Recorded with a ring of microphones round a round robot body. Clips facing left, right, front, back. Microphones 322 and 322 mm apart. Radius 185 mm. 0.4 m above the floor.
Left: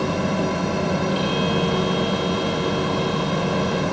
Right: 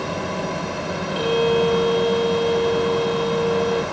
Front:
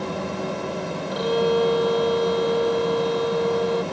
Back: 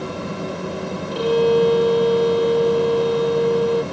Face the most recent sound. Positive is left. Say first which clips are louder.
# right 4 dB, back 5 dB
turn(degrees=-125)